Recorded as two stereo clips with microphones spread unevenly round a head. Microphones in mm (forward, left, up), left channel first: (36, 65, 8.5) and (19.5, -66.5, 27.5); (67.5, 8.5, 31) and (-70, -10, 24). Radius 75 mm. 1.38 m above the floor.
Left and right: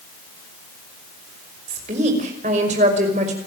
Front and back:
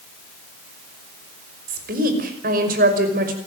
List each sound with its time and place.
1.7 s a woman speaking: 145° right, 5.5 m